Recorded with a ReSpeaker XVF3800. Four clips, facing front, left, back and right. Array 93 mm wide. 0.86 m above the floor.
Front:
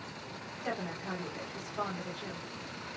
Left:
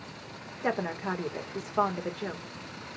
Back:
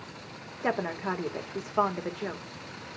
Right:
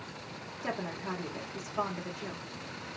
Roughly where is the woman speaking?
Behind left.